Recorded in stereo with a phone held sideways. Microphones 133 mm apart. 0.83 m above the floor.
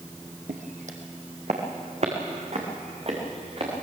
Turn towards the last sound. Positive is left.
turn(degrees=-45)  # may be behind; listen again after turning